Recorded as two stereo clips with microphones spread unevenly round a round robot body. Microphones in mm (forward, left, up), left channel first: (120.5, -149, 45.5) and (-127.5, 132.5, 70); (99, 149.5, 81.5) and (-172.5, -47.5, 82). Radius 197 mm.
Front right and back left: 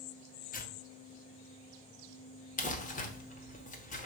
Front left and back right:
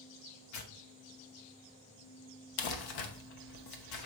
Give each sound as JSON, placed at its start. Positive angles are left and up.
{"t": 0.5, "sound": "tearing paper", "azimuth_deg": 15, "distance_m": 0.9}
{"t": 2.6, "sound": "crumpling", "azimuth_deg": 20, "distance_m": 0.9}